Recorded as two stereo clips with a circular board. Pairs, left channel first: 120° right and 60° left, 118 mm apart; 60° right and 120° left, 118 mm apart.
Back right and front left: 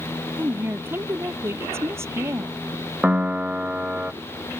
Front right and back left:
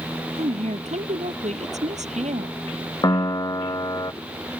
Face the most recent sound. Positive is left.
turn(degrees=-15)